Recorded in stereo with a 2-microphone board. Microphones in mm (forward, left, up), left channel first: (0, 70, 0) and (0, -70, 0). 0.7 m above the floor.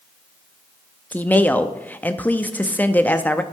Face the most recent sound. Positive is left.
turn(degrees=10)  # may be behind; listen again after turning